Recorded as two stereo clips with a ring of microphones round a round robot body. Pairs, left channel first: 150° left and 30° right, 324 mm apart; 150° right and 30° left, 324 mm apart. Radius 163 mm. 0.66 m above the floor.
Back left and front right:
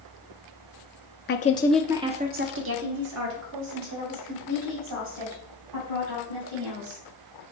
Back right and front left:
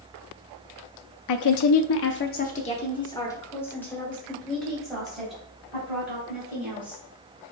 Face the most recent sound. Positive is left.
turn(degrees=-55)